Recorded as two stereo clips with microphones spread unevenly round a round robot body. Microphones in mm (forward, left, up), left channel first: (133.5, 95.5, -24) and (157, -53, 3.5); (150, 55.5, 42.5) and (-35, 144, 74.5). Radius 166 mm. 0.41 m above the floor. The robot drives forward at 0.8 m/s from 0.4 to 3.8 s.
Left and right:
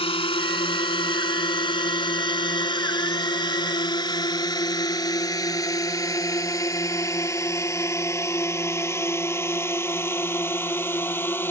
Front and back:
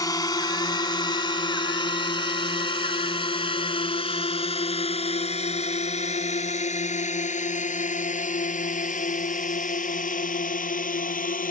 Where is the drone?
45° left; by 11.5 s 25° left.